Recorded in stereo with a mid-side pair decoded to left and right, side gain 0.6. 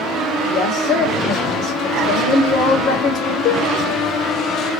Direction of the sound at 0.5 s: 65° left.